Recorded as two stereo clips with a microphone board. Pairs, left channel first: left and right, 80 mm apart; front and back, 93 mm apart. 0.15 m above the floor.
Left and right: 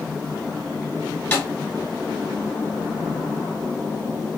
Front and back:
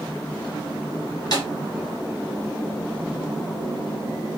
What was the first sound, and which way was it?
A snare drum, 25° left.